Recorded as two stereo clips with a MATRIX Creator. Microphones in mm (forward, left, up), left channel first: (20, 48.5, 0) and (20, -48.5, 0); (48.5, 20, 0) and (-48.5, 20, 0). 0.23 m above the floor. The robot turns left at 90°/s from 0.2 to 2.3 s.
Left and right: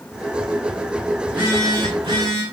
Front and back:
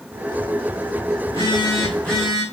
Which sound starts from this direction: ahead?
A phone buzzing, at 1.2 s.